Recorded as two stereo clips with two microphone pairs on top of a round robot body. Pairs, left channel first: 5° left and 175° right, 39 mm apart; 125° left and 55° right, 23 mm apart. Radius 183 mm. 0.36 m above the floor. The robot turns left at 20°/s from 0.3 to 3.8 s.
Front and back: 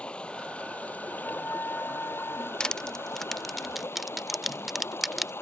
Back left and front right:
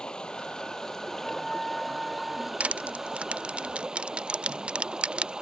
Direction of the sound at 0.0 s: 70° left.